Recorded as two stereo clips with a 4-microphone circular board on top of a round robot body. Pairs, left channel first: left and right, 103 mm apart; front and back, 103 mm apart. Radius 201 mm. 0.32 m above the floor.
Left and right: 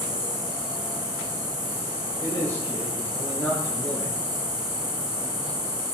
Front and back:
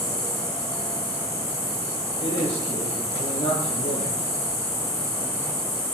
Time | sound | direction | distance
0.0 | an insect | 35° left | 8 m
2.2 | a man speaking | 15° left | 9.5 m